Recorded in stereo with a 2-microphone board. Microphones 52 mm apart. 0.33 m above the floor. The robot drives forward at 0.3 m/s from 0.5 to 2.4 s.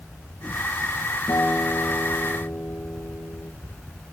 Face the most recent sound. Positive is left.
turn(degrees=75)  # may be behind; listen again after turning